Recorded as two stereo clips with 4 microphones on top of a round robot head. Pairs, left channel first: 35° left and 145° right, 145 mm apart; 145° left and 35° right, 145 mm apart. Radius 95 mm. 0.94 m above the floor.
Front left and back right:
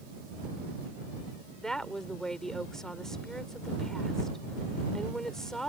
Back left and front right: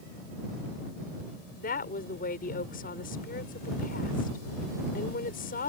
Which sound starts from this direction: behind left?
A woman speaking, at 1.6 s.